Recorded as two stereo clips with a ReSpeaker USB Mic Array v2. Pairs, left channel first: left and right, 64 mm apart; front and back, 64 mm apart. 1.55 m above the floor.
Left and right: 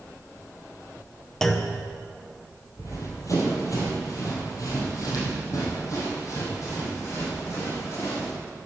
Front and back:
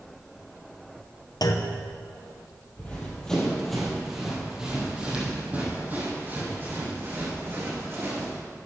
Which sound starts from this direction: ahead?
A clunk, at 1.4 s.